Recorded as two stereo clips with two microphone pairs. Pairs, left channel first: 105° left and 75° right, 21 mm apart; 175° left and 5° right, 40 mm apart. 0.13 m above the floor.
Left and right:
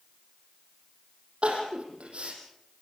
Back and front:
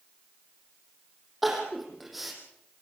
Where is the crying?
95° right, 5.5 m.